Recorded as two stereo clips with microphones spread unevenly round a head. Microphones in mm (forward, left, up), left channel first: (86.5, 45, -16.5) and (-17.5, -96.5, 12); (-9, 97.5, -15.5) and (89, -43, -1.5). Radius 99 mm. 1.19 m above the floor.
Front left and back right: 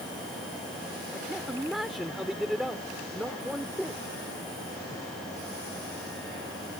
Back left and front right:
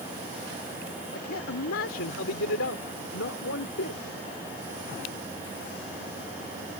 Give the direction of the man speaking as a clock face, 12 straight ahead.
7 o'clock.